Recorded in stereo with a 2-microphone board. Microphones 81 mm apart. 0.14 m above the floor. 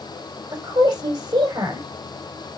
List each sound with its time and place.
0.5 s a woman speaking: 60° right (ahead or behind), 6 m